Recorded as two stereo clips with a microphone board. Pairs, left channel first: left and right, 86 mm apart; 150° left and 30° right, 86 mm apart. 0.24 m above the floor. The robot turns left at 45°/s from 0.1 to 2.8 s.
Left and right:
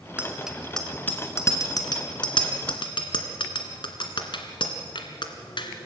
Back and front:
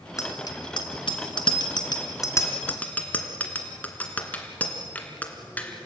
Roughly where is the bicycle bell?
Behind.